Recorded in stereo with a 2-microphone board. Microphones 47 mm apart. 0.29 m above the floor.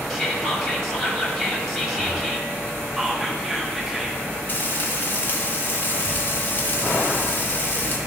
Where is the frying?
40° left (ahead or behind), 1.5 m.